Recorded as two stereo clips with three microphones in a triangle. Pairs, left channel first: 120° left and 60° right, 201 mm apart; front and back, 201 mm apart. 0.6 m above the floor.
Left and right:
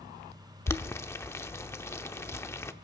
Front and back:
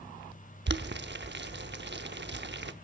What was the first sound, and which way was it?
Boiling, 165° right.